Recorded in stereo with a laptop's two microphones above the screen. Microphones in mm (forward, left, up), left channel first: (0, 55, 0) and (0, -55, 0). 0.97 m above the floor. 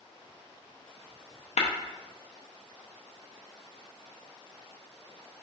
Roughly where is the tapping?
Left.